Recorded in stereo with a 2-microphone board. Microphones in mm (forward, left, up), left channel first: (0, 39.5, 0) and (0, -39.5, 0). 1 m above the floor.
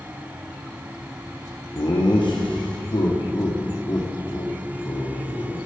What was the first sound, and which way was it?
Laughter, 75° left (ahead or behind).